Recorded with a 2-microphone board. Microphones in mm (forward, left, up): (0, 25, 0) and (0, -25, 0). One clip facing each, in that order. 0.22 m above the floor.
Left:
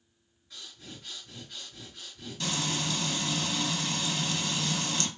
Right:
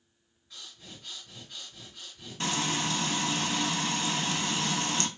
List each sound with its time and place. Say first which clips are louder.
0.5 s breathing: left 1 dB; 5° right (ahead or behind), 2.0 m
2.4 s frying: right 2 dB; 40° right (ahead or behind), 0.6 m